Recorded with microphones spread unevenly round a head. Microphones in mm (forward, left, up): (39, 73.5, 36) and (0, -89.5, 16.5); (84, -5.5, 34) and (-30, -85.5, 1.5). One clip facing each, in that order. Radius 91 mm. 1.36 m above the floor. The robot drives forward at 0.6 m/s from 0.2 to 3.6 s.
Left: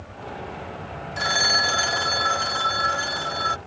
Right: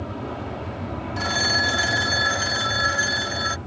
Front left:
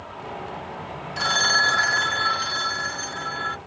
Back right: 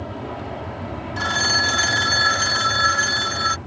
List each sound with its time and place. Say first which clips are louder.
0.0 s an aircraft: right 5 dB, back right 5 dB; 110° right; by 3.7 s 115° right
1.2 s a phone ringing: even, even; 10° left; by 3.6 s 175° left